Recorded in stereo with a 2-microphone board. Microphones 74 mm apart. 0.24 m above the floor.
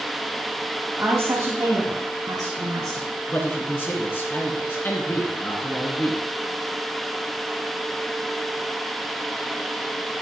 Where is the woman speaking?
30° right (ahead or behind), 1.2 m; by 3.1 s 65° right (ahead or behind), 2.5 m.